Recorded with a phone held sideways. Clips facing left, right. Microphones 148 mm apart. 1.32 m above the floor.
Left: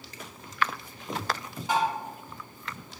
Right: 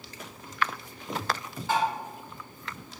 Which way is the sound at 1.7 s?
15° left (ahead or behind).